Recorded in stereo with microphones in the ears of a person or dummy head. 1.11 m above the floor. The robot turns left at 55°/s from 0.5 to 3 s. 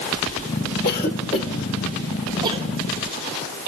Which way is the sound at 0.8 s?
55° left (ahead or behind).